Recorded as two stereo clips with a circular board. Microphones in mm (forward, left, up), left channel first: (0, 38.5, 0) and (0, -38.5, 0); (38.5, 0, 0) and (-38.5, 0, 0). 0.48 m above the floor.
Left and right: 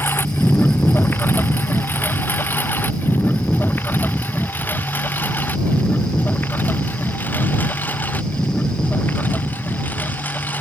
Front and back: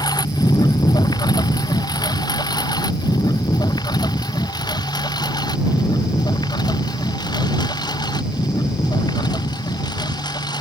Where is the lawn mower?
30° left; by 10.6 s 25° left.